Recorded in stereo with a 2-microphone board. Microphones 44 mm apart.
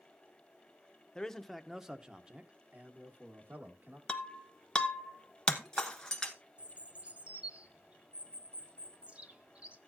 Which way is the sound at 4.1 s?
10° left (ahead or behind).